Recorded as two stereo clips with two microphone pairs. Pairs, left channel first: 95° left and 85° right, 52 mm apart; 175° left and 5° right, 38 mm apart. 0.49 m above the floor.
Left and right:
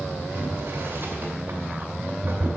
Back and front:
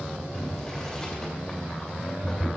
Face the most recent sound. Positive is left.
turn(degrees=-110)